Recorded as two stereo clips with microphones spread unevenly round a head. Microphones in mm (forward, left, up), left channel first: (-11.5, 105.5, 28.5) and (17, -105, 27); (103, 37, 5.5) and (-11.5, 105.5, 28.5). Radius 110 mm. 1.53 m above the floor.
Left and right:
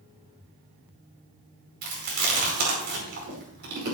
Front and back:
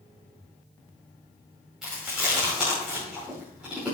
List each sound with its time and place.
1.8 s chewing: 125° right, 5 m